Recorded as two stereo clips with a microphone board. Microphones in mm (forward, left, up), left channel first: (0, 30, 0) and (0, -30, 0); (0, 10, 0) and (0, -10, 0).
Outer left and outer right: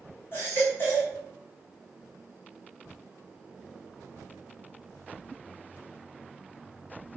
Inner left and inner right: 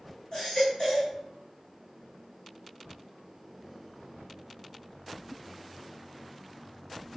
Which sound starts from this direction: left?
A baby crying, at 0.3 s.